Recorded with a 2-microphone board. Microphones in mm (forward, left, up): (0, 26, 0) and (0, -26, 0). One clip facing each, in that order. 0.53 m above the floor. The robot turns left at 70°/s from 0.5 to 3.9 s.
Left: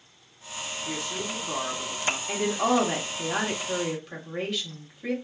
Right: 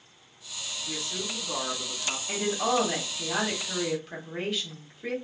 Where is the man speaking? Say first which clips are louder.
Left 2 dB; 110° left, 1.2 m; by 2.2 s 15° left, 1.2 m.